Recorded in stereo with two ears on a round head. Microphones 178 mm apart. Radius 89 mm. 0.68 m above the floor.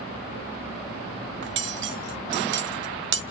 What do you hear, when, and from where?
1.4 s cutlery clinking: 60° right (ahead or behind), 0.8 m